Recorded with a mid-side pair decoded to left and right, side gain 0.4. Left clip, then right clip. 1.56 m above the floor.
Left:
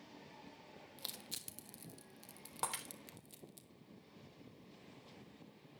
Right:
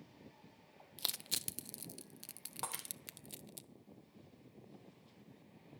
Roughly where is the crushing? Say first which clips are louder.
Right 8 dB; ahead right.